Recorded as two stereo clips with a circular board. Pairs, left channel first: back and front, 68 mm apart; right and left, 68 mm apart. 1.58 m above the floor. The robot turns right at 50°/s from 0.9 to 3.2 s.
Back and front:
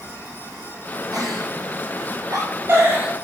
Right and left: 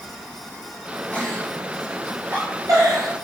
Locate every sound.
1.1 s a giggle: 25° right, 6.5 m; by 3.1 s 75° left, 6.5 m